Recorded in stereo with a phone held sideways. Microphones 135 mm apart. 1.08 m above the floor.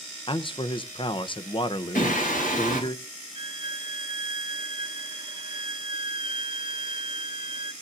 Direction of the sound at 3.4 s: 40° right (ahead or behind).